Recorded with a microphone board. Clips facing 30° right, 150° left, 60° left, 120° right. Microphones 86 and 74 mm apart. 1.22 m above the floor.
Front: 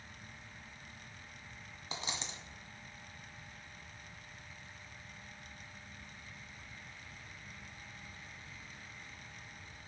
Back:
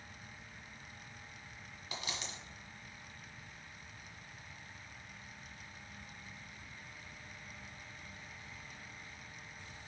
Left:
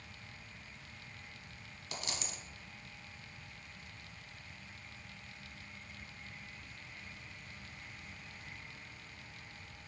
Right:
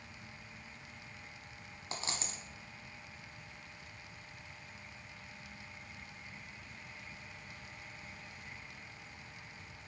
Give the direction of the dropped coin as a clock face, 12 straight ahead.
3 o'clock.